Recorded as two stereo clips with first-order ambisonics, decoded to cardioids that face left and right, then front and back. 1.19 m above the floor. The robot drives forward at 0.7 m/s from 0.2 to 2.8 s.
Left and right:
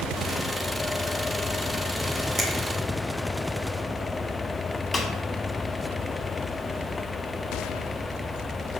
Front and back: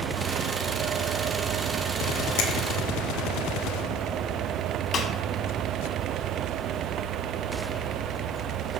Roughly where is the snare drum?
Ahead.